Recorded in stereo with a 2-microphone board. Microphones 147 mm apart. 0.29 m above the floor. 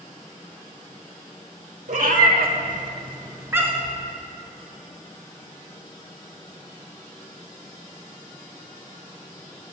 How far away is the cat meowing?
About 0.8 m.